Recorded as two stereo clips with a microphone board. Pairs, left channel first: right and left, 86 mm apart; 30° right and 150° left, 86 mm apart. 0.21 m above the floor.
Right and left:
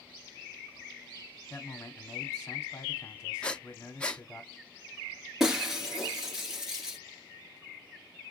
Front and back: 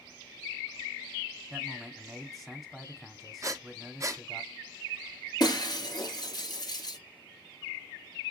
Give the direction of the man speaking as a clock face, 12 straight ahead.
4 o'clock.